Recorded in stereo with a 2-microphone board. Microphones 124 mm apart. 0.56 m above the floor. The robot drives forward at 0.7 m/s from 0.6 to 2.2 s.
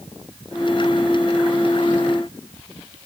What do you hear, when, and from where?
Only background noise.